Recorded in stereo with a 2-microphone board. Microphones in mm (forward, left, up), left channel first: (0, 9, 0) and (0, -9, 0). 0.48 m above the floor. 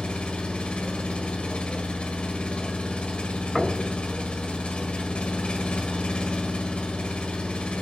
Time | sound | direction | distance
0.0 | an engine running | 65° left (ahead or behind) | 1.3 m
3.5 | knocking | 5° left (ahead or behind) | 3.5 m